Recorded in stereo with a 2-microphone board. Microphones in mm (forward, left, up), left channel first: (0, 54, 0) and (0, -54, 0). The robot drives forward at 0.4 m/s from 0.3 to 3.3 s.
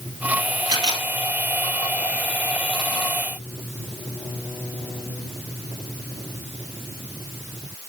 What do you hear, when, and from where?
0.7 s a camera shutter: 40° right (ahead or behind), 1.8 m